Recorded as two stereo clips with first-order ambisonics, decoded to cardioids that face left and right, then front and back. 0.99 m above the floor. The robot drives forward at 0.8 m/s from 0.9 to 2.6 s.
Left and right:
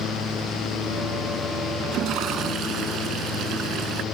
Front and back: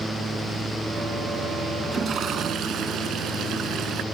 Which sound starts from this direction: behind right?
A toilet flushing, at 1.8 s.